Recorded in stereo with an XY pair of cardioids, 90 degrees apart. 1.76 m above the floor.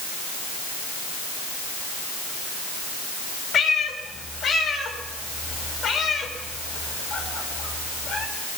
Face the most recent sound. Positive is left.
turn(degrees=65)